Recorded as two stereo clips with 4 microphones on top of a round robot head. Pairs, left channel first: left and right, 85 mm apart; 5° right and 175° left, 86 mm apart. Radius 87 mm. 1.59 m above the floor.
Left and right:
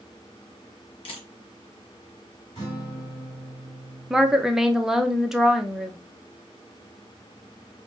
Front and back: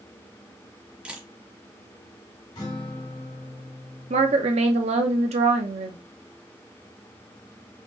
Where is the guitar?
30° left, 3 m.